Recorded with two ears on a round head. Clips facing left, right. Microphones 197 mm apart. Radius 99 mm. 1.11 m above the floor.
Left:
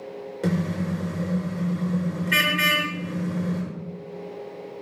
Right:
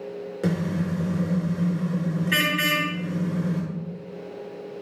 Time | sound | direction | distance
0.4 | a car horn | 10° right (ahead or behind) | 6.5 m